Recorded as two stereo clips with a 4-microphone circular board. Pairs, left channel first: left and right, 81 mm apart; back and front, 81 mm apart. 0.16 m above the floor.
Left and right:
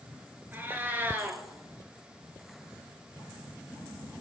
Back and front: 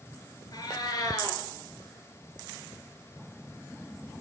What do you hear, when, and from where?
0.5 s a cat meowing: 150° right, 1.5 m